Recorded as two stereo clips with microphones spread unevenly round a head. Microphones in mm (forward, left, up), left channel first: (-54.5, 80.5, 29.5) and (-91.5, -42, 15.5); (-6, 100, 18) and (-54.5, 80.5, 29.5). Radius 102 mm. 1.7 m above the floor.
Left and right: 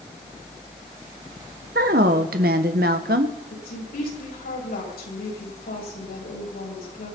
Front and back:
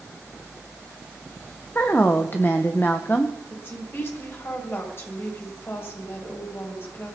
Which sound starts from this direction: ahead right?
A woman speaking, at 1.8 s.